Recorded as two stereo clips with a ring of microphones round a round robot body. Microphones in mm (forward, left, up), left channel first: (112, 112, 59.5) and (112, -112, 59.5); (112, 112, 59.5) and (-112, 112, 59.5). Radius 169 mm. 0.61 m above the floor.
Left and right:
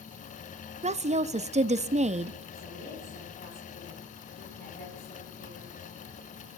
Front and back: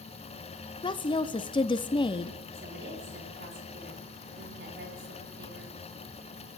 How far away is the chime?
I don't hear a chime.